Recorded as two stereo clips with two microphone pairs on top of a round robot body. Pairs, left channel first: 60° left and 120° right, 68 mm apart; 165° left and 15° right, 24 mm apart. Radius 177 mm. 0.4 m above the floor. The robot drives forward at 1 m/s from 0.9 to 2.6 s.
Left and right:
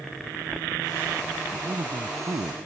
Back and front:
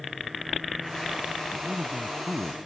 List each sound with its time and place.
1.5 s a man speaking: 75° right; by 2.7 s 85° right